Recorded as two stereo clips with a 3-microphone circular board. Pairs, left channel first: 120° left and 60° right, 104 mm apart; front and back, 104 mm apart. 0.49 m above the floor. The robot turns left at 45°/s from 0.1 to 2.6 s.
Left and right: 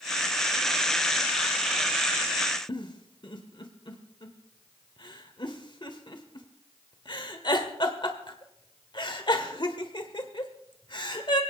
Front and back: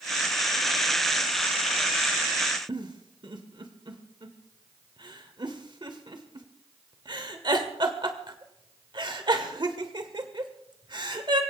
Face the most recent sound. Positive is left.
turn(degrees=150)